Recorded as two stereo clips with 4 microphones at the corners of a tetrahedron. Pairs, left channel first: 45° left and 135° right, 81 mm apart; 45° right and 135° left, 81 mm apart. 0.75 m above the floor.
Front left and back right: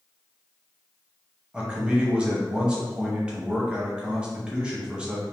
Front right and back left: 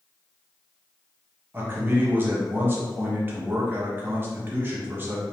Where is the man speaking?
160° left, 1.0 m.